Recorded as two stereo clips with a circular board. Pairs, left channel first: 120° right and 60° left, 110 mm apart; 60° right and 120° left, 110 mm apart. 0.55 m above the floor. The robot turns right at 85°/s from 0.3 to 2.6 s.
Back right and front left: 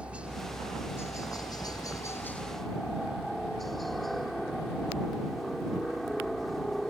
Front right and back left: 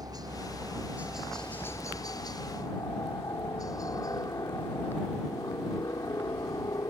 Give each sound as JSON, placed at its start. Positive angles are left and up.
{"t": 0.0, "sound": "a helicopter", "azimuth_deg": 130}